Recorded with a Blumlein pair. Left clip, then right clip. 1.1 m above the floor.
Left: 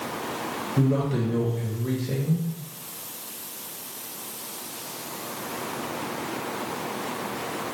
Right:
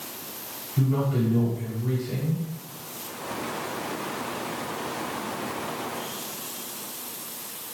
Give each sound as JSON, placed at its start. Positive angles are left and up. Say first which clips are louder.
{"t": 0.8, "sound": "a man speaking", "louder": "left 1 dB", "azimuth_deg": 60, "distance_m": 1.1}